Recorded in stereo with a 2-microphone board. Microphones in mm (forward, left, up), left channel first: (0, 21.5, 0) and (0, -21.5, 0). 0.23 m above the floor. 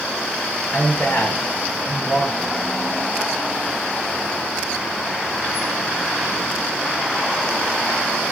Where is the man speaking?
70° left (ahead or behind), 2.5 m.